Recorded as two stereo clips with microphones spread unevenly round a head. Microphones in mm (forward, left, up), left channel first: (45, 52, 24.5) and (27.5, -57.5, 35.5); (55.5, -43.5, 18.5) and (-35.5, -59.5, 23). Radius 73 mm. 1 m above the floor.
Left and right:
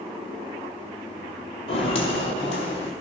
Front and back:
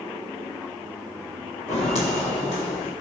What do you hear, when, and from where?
1.7 s footsteps: 40° left, 2 m; by 2.9 s 45° left, 3 m